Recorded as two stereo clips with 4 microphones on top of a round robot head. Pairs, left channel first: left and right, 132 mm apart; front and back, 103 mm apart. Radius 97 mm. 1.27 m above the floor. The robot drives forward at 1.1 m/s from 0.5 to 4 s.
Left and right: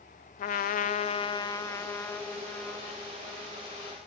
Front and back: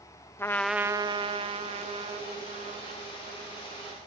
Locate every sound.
0.4 s a trumpet: 70° left, 0.6 m; by 4.1 s 170° left, 3.5 m